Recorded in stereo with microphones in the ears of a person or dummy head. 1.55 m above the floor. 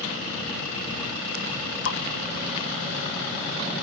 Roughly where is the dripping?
Left.